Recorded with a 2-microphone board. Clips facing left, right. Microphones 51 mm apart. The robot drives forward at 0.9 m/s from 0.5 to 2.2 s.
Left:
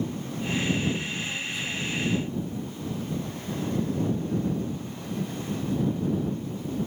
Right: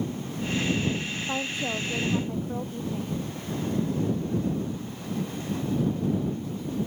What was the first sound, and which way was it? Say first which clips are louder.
A woman speaking: right 2 dB; 50° right (ahead or behind).